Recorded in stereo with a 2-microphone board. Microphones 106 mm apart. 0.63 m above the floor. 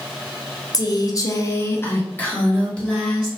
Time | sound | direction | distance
0.7 | a woman speaking | 35° left (ahead or behind) | 0.6 m